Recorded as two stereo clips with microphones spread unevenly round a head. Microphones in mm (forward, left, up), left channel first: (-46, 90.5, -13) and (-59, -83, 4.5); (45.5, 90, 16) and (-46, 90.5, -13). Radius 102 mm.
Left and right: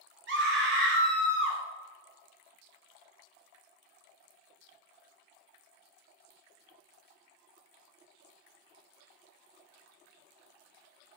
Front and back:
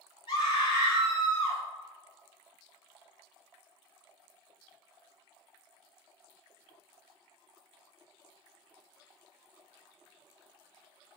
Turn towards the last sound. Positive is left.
turn(degrees=-60)